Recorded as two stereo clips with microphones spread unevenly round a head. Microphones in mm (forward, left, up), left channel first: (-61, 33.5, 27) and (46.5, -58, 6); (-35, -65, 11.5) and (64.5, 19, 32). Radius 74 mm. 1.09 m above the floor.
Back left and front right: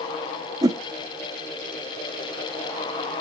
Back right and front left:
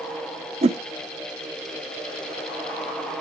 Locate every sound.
0.6 s a whoosh: 30° left, 0.6 m